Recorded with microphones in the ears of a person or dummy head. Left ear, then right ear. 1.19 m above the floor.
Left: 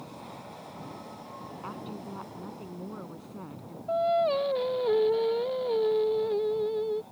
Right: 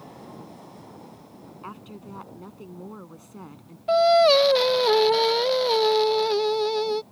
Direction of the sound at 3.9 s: 65° right (ahead or behind).